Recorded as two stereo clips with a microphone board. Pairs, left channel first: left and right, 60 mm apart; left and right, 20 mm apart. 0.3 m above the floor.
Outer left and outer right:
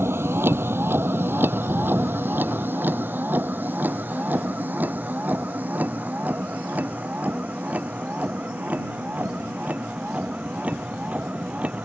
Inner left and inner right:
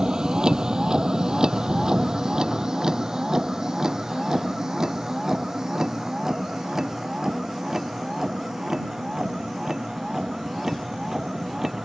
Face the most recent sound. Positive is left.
turn(degrees=-25)  # may be behind; listen again after turning